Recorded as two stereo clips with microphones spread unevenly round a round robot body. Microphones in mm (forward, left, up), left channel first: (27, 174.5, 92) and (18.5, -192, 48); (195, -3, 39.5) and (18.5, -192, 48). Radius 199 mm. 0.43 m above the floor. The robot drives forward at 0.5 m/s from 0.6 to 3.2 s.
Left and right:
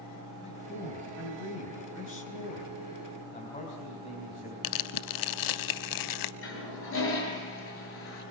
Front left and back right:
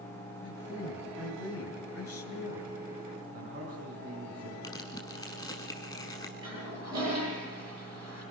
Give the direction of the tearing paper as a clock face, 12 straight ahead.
8 o'clock.